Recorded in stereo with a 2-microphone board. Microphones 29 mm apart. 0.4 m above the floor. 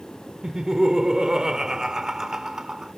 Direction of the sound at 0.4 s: 20° right (ahead or behind).